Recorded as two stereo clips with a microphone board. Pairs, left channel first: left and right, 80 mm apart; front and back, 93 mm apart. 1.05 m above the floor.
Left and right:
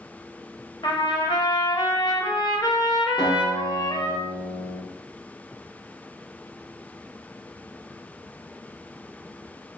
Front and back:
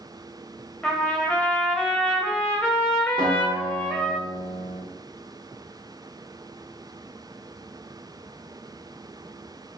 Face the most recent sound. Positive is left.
turn(degrees=15)